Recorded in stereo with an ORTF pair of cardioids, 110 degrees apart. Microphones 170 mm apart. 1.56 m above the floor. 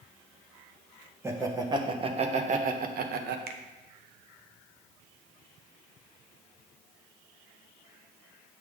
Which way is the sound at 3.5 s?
65° right.